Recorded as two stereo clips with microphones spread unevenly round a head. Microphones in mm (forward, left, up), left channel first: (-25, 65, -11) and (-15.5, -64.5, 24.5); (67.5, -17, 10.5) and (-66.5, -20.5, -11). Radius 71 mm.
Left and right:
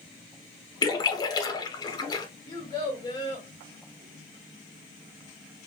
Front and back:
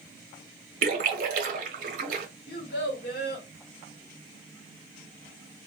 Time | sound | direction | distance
0.8 | a splash | 160° left | 0.8 m
2.5 | a child speaking | 30° left | 1.3 m